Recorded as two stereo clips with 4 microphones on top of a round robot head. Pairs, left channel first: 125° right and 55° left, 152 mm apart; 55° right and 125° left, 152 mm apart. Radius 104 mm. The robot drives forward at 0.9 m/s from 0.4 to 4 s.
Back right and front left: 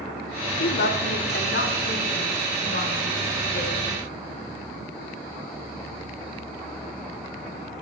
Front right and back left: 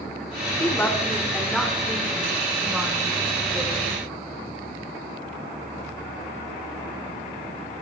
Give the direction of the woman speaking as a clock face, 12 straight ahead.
4 o'clock.